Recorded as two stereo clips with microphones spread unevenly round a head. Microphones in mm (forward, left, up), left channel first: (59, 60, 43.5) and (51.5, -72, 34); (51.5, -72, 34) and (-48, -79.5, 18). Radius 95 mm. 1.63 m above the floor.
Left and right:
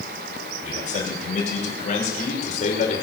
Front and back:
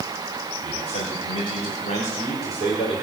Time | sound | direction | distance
0.6 | a man speaking | 60° left | 6 m